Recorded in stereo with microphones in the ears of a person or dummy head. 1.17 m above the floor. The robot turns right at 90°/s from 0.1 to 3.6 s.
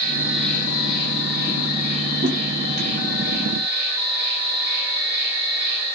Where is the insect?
25° right, 2.5 m; by 6.0 s 70° right, 2.5 m.